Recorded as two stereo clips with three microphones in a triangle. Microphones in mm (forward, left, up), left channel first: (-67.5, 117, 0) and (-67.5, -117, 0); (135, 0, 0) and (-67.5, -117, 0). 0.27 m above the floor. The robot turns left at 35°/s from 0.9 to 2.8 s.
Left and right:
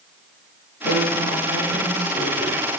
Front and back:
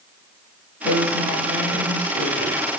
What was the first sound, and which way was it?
A woman speaking, 65° left.